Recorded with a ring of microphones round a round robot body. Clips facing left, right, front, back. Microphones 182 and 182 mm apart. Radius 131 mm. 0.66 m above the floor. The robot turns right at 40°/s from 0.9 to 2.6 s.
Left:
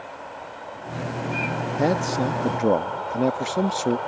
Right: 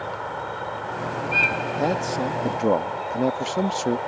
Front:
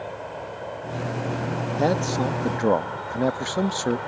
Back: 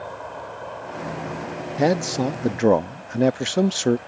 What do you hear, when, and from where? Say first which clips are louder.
0.0 s an insect: right 6 dB, front 1 dB; 75° right; by 4.1 s 5° right
1.8 s a man speaking: left 2 dB, back 3 dB; 135° left; by 4.0 s 165° left